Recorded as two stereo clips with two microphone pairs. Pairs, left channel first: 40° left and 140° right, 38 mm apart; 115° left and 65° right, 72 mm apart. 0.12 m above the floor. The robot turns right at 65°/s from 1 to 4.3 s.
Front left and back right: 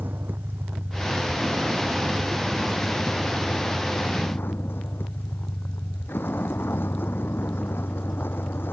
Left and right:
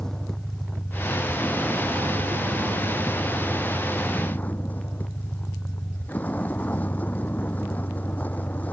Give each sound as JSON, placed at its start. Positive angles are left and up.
{"t": 0.0, "sound": "a vehicle", "azimuth_deg": -165}